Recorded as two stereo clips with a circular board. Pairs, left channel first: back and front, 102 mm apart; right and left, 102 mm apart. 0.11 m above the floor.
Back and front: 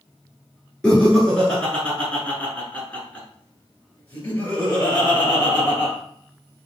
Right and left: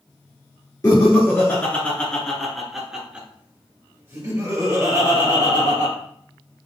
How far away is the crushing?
No crushing in this recording.